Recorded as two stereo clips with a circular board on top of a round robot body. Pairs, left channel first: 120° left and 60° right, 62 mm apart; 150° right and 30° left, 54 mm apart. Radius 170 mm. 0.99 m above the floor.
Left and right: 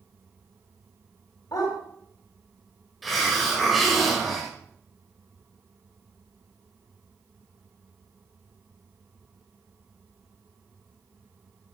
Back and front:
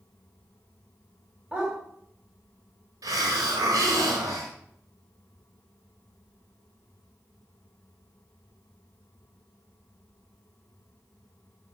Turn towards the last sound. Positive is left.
turn(degrees=30)